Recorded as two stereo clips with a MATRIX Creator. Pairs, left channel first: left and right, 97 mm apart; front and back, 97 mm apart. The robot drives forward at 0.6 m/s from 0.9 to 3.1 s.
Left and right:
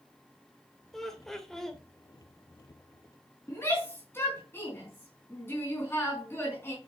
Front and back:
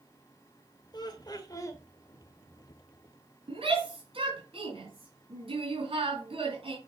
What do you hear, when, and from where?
0.9 s laughter: 5° left, 1.8 m; by 1.8 s 10° left, 1.5 m
3.5 s a shout: 155° left, 3.5 m